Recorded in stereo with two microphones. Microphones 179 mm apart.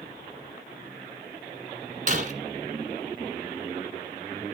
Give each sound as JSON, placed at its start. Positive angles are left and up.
{"t": 2.1, "sound": "breaking glass", "side_deg": -45, "distance_m": 1.4}